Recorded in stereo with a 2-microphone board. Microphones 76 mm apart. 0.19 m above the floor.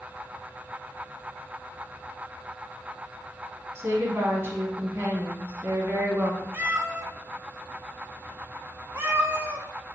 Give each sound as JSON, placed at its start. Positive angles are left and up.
{"t": 3.8, "sound": "a woman speaking", "side_deg": -35, "distance_m": 1.3}
{"t": 6.5, "sound": "a cat meowing", "side_deg": -35, "distance_m": 0.7}